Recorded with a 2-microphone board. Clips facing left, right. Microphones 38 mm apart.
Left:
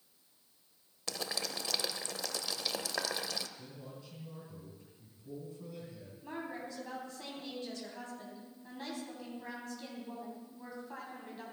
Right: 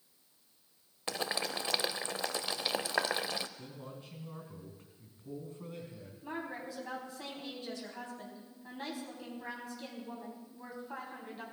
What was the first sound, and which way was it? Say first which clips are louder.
Boiling: right 4 dB; 30° right (ahead or behind).